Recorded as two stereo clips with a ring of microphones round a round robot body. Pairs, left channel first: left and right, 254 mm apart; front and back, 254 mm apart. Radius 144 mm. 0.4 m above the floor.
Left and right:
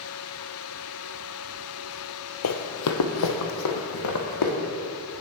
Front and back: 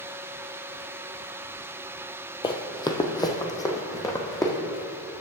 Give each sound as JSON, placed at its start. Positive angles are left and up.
{"t": 2.4, "sound": "running footsteps", "azimuth_deg": 70, "distance_m": 0.7}